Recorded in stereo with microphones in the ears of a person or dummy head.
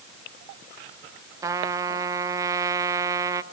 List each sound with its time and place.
1.4 s a trumpet: 20° right (ahead or behind), 0.7 m